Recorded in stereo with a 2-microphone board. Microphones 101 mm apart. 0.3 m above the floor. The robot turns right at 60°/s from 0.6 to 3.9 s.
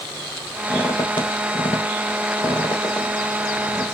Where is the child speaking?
No child speaking in this recording.